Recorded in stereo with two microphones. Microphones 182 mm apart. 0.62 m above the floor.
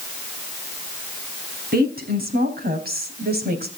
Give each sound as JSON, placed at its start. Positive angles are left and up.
{"t": 1.7, "sound": "a woman speaking", "side_deg": -60, "distance_m": 5.0}